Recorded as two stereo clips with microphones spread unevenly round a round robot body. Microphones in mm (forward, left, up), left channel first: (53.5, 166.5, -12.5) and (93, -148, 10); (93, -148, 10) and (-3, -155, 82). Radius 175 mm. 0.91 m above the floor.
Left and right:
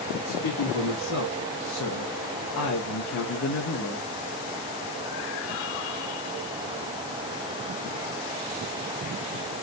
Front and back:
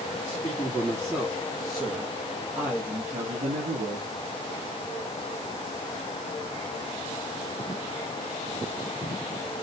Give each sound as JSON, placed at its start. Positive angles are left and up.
{"t": 0.2, "sound": "a man speaking", "azimuth_deg": 65, "distance_m": 2.0}